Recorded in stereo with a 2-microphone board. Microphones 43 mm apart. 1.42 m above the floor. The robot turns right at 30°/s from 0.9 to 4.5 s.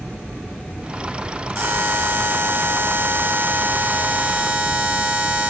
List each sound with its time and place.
1.6 s a buzzer: 105° right, 2 m; by 5.5 s 15° right, 2 m